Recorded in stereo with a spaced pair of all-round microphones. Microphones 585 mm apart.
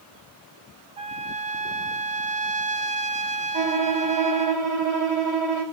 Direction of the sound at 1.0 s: 70° right (ahead or behind).